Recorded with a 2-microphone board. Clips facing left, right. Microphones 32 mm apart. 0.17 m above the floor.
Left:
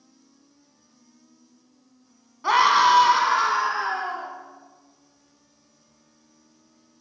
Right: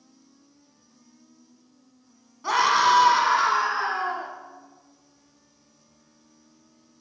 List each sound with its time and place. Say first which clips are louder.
2.4 s a scream: left 3 dB; 25° left (ahead or behind), 1.8 m; by 4.3 s 10° right (ahead or behind), 2.5 m